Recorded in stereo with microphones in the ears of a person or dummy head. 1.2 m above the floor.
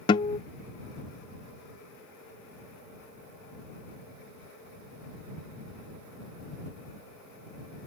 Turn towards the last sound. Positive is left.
turn(degrees=20)  # may be behind; listen again after turning